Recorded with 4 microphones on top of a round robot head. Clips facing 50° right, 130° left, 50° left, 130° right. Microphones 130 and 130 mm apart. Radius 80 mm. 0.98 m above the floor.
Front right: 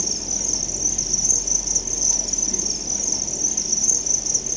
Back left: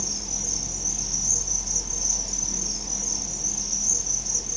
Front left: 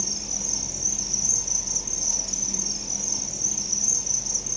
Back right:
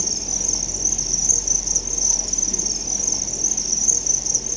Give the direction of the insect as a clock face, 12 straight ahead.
3 o'clock.